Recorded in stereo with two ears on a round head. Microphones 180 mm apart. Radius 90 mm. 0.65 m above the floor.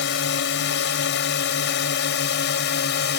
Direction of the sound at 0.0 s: 60° left (ahead or behind).